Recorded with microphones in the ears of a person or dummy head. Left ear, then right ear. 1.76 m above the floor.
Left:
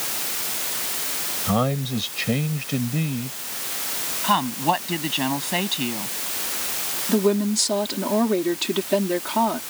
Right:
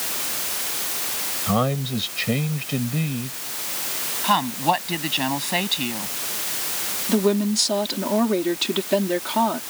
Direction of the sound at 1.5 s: 5° right (ahead or behind).